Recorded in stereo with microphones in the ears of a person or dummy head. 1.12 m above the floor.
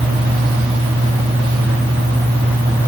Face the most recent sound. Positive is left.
No sound to turn to.